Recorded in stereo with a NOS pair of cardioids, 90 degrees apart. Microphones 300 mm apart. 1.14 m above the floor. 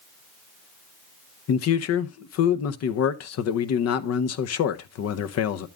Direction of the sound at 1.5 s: 55° left.